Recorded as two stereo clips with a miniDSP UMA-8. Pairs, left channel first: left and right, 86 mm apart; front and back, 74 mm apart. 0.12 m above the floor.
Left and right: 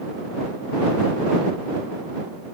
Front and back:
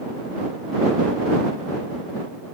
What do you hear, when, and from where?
Only background noise.